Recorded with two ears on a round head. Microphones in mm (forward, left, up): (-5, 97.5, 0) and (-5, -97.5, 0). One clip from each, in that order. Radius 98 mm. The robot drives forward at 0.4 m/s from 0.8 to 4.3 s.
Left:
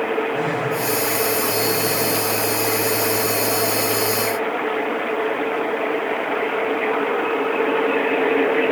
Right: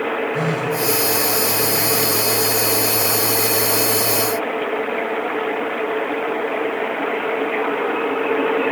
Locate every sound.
0.3 s a phone buzzing: 80° right, 5 m